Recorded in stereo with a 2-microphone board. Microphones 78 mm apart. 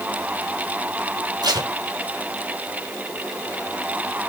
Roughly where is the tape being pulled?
Right.